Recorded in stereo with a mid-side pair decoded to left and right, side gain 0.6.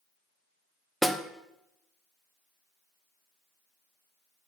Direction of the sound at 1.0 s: 5° right.